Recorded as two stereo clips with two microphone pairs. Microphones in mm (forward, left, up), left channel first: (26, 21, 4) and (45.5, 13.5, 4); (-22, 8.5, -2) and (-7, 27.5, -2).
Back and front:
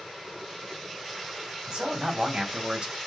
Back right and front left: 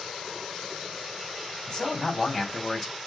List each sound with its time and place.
1.7 s a man speaking: 65° right, 2.5 m; by 2.9 s 50° right, 2 m